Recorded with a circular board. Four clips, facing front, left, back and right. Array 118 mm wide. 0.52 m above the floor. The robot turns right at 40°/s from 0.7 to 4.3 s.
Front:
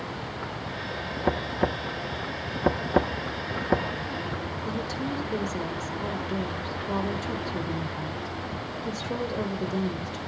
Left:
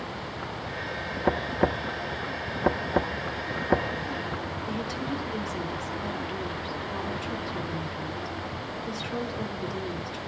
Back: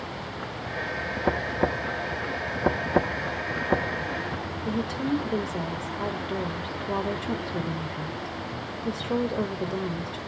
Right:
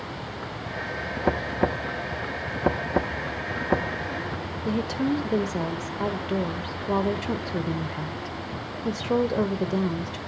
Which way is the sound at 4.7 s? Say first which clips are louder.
Right 9 dB, back 5 dB; 100° right.